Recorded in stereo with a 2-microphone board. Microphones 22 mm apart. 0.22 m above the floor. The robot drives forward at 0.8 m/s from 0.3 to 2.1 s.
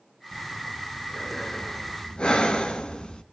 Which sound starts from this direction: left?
Breathing, at 0.3 s.